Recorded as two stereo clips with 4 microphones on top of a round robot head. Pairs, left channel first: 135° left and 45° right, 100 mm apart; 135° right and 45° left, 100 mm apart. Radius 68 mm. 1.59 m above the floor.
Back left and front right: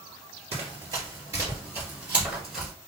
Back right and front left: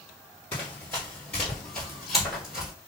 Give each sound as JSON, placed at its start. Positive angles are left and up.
{"t": 0.5, "sound": "running footsteps", "azimuth_deg": -70, "distance_m": 1.9}